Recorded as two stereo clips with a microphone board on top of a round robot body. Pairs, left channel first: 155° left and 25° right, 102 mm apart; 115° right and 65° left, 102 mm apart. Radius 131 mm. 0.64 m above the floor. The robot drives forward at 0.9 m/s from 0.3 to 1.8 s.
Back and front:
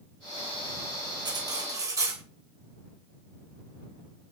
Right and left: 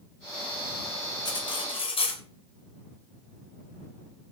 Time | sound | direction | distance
1.2 | cutlery clinking | 70° right | 2 m